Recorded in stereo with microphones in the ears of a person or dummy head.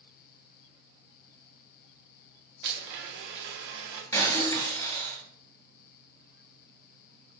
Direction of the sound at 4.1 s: 15° left (ahead or behind).